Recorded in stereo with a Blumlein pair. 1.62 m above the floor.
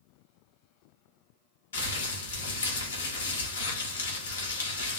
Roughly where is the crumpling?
Ahead left.